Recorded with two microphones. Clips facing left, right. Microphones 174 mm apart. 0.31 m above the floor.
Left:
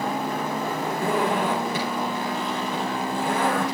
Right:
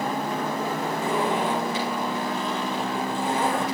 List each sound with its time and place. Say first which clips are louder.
1.0 s a zipper: left 2 dB; 60° left (ahead or behind), 10 m